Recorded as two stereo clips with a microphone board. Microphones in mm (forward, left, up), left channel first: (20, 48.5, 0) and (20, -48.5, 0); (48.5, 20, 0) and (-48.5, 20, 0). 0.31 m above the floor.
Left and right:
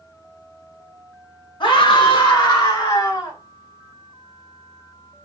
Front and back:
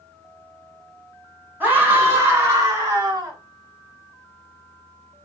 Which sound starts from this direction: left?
A scream, at 1.6 s.